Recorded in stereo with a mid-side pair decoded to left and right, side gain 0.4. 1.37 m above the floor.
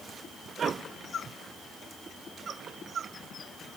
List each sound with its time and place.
Only background noise.